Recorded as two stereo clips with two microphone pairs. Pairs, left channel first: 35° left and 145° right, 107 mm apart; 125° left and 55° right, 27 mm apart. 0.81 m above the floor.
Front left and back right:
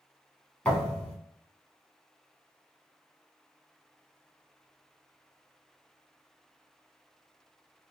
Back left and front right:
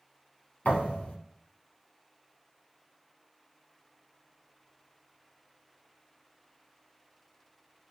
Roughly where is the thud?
Left.